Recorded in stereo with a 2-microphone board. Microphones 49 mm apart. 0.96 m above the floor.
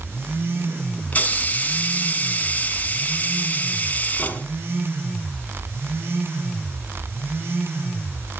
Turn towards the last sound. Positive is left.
turn(degrees=30)  # may be behind; listen again after turning